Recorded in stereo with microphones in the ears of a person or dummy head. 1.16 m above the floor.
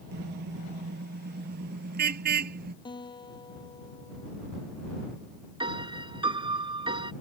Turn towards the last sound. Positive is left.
turn(degrees=-30)  # may be behind; listen again after turning